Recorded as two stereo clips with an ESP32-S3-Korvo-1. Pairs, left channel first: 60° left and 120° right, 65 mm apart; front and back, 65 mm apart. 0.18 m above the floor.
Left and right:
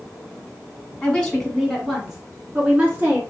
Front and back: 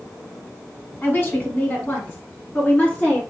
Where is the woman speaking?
Straight ahead, 1.3 m; by 3.2 s 65° right, 2 m.